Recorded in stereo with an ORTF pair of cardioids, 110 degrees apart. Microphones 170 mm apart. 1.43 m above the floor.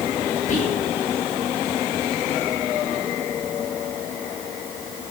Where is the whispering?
50° left, 4.5 m.